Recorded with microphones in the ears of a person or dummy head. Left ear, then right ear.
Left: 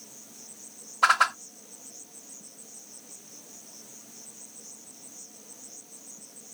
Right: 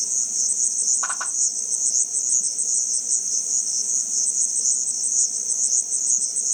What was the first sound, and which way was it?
An insect, 75° right (ahead or behind).